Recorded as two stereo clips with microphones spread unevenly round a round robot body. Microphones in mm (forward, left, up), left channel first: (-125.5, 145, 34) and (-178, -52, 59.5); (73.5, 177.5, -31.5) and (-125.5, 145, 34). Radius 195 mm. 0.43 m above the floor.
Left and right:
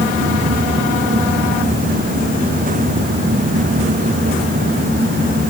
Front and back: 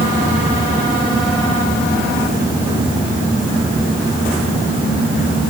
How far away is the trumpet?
I don't hear a trumpet.